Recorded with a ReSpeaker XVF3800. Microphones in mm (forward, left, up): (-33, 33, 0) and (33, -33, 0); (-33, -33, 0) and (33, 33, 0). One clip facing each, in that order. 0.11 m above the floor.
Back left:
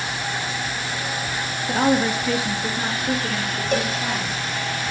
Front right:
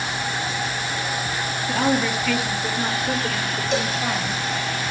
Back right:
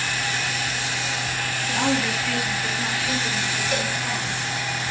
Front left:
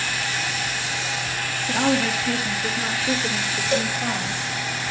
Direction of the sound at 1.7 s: 95° left.